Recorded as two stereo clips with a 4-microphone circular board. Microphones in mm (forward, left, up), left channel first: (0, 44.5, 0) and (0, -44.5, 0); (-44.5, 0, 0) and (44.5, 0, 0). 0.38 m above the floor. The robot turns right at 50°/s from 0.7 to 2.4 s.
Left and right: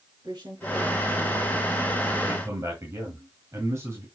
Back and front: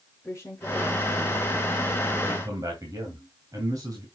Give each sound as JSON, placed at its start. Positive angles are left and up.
{"t": 0.2, "sound": "a woman speaking", "azimuth_deg": -120, "distance_m": 5.0}
{"t": 2.2, "sound": "a man speaking", "azimuth_deg": -45, "distance_m": 2.5}